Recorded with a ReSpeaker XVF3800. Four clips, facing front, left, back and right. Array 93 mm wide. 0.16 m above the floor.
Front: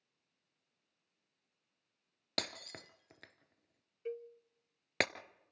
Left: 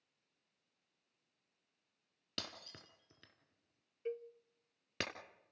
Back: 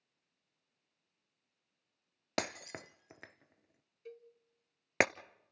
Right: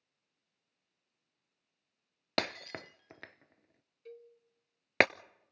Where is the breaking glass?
110° right, 0.6 m.